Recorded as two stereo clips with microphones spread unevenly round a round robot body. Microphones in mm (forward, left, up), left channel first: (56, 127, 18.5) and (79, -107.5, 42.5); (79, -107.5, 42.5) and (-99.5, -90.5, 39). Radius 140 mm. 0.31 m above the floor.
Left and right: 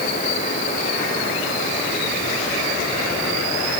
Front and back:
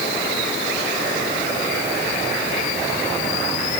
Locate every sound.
Only background noise.